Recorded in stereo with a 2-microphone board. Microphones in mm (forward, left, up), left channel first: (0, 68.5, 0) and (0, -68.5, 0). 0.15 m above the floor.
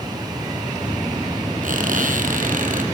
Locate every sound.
1.6 s a squeak: 75° right (ahead or behind), 2.5 m